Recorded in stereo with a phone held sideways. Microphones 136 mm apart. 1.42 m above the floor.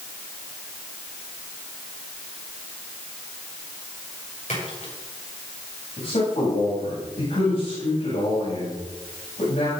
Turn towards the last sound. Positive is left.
turn(degrees=60)  # may be behind; listen again after turning